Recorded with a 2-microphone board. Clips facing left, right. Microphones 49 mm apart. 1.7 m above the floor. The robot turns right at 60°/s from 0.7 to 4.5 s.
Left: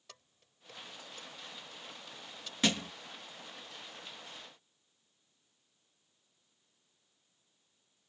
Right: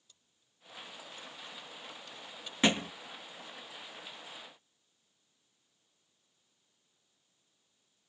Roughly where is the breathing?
No breathing in this recording.